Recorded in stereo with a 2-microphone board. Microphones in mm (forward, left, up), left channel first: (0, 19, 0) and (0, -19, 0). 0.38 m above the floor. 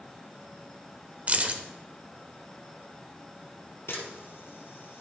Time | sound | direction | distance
1.3 | keys jangling | 40° right (ahead or behind) | 0.7 m
3.9 | a camera shutter | 90° left | 2.5 m